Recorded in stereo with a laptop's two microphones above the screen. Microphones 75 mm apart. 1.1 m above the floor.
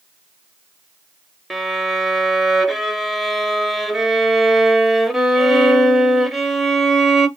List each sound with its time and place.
1.5 s a violin: centre (ahead or behind), 0.6 m